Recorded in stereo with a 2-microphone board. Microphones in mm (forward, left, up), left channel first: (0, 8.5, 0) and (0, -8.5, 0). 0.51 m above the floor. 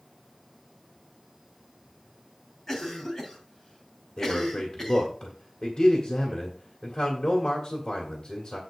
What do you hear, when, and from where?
2.7 s a cough: 25° left (ahead or behind), 3 m
4.2 s a man speaking: 60° left (ahead or behind), 2 m